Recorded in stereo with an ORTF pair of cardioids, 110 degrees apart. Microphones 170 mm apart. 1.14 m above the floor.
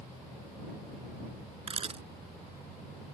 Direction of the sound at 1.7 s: 35° right.